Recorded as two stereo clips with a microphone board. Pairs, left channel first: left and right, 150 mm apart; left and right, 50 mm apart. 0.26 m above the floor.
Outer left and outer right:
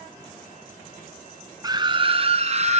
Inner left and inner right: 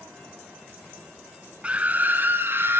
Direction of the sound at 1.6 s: 25° right (ahead or behind).